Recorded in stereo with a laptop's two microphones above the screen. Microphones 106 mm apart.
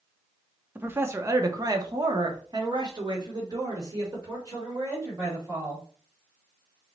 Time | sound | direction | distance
0.8 | a man speaking | 15° right (ahead or behind) | 0.8 m